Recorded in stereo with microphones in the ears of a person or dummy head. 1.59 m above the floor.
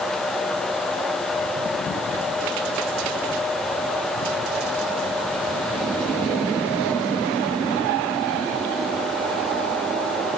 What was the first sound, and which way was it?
Only background noise.